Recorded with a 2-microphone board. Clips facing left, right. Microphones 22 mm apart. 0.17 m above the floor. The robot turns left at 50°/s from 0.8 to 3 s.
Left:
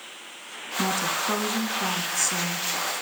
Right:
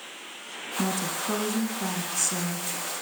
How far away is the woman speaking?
About 1.4 m.